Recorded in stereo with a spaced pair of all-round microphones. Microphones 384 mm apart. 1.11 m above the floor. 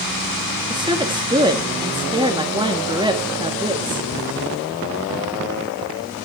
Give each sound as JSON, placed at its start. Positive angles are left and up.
{"t": 0.7, "sound": "a woman speaking", "side_deg": -10, "distance_m": 2.0}